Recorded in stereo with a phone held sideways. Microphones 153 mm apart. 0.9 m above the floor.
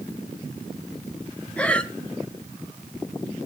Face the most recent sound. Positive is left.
turn(degrees=10)  # may be behind; listen again after turning